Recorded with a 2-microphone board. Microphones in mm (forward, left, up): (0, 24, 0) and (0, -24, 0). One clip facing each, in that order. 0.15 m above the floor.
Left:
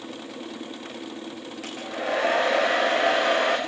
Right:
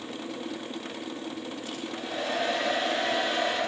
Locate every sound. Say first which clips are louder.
1.6 s a hair dryer: left 5 dB; 85° left, 7.5 m